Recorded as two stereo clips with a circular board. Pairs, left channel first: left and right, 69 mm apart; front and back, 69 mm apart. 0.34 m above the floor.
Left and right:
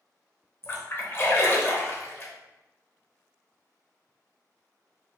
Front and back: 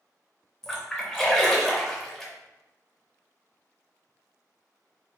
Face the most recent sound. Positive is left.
turn(degrees=85)